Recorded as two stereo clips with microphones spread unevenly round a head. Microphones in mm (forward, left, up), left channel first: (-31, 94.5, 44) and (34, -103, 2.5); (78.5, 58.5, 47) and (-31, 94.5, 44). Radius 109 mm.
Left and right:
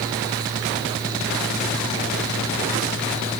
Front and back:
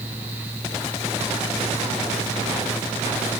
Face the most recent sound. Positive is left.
No sound to turn to.